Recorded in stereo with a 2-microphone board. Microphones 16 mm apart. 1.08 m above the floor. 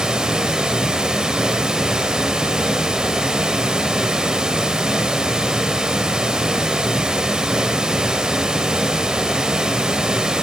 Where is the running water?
50° right (ahead or behind), 1.3 m.